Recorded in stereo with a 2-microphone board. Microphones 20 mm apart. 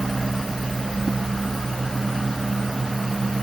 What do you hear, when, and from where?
Only background noise.